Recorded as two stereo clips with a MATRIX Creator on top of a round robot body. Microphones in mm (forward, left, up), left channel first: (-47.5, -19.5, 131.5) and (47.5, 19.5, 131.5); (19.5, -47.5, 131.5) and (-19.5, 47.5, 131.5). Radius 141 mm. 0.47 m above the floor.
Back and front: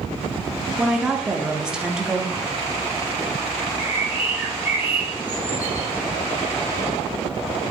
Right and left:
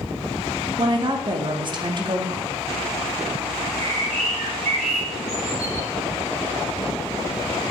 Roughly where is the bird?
Left.